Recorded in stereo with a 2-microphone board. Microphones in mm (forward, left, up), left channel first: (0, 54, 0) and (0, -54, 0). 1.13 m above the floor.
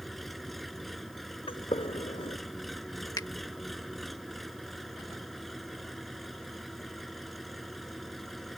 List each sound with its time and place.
0.0 s an engine running: centre (ahead or behind)
1.5 s a gunshot: 55° left (ahead or behind)
3.2 s a finger snap: 35° left (ahead or behind)